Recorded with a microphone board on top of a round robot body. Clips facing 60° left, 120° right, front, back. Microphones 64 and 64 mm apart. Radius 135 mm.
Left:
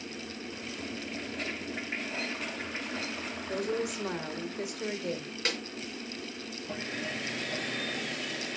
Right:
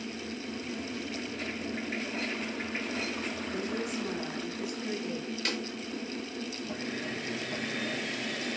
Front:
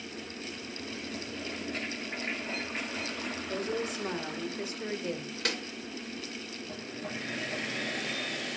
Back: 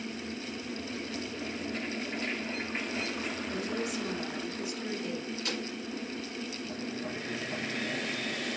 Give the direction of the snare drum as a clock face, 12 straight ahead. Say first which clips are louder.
Left 2 dB, front 4 dB; 12 o'clock.